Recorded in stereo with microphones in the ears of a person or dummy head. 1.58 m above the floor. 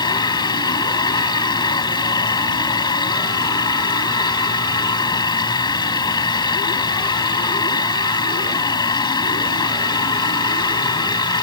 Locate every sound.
0.0 s a machine running: 20° left (ahead or behind)